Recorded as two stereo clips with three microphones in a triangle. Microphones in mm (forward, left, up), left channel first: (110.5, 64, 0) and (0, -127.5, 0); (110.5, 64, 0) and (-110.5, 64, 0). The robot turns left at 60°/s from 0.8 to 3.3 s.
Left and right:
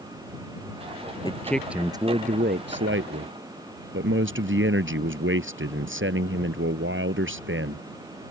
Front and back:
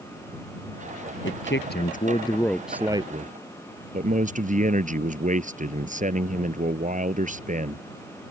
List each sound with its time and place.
1.2 s a man speaking: 5° right; by 7.9 s 130° right